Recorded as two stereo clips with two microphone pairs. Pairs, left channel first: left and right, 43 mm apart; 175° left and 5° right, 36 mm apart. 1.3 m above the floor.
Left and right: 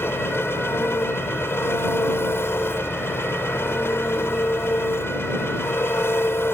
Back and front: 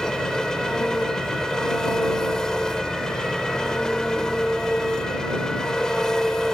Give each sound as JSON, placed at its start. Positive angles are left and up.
{"t": 0.0, "sound": "an engine running", "azimuth_deg": 100}